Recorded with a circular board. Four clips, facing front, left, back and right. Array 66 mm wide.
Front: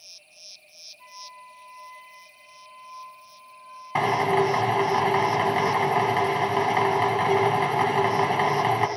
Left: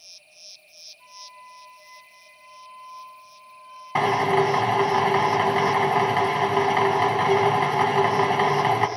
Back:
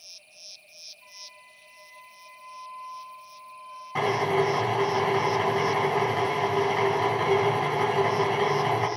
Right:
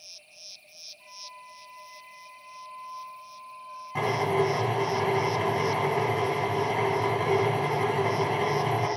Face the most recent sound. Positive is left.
turn(degrees=55)